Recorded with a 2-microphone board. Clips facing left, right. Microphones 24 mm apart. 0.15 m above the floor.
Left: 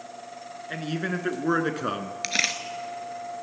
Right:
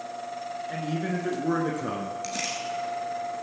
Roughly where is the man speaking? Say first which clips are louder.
Left 2 dB; left.